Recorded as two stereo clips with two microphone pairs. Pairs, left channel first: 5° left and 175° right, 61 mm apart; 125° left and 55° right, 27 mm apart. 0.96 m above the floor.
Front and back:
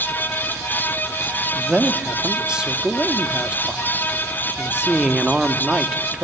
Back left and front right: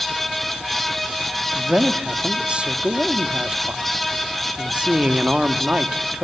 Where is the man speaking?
100° right, 1.6 m.